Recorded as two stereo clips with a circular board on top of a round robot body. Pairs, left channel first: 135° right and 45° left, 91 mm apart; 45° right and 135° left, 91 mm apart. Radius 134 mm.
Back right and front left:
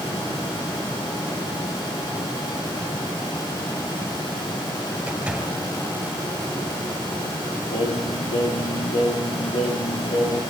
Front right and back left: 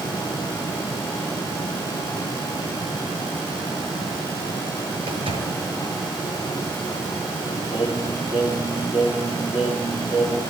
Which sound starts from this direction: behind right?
Singing, at 7.7 s.